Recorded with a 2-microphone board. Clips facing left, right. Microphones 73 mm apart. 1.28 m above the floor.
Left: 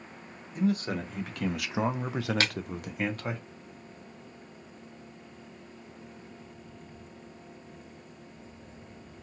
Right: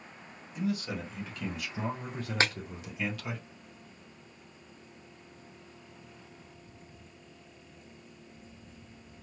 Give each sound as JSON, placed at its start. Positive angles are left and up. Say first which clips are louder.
{"t": 0.6, "sound": "a man speaking", "louder": "left 5 dB", "side_deg": 40, "distance_m": 1.0}
{"t": 2.4, "sound": "breaking glass", "louder": "right 4 dB", "side_deg": -25, "distance_m": 0.5}